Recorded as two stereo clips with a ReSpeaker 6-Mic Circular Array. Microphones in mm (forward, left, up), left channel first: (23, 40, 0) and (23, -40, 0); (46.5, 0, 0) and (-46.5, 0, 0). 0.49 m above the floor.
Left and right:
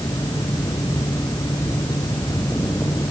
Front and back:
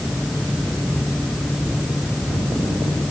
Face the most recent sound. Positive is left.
No sound to turn to.